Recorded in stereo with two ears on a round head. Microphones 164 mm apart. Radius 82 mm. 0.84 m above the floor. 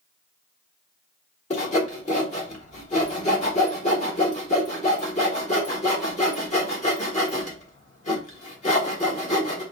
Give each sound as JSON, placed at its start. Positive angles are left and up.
{"t": 1.5, "sound": "sawing", "side_deg": 40, "distance_m": 1.3}